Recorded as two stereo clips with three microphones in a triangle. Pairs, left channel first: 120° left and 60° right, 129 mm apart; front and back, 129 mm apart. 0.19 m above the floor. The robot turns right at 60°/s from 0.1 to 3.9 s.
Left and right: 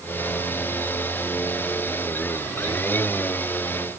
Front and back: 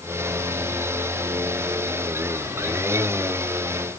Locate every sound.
Only background noise.